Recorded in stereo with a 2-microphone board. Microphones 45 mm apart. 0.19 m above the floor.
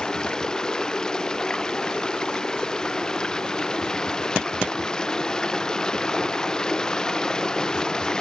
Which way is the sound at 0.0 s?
15° left (ahead or behind).